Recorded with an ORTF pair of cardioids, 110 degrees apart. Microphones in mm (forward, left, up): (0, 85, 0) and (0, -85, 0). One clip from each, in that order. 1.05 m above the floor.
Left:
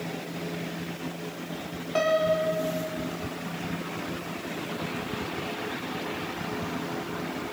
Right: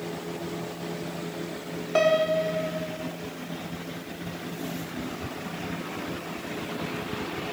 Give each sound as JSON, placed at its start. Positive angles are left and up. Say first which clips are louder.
{"t": 1.9, "sound": "a piano", "louder": "right 2 dB", "azimuth_deg": -20, "distance_m": 3.5}